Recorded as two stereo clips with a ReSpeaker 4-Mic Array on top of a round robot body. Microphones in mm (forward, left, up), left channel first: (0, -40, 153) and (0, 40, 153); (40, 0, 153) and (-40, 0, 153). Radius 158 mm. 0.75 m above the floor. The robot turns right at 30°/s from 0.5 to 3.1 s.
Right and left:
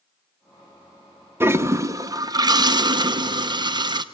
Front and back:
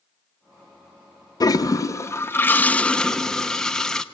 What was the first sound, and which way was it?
A toilet flushing, 35° left.